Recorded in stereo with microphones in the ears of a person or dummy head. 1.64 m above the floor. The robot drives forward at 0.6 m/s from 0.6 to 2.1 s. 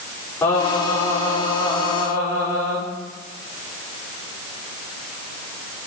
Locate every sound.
0.4 s singing: 15° left (ahead or behind), 6 m